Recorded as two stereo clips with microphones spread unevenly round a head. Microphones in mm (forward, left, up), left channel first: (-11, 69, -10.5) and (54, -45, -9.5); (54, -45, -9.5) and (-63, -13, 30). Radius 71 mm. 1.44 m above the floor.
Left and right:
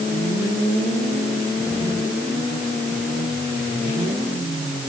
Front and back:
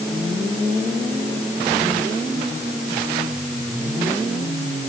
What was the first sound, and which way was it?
Only background noise.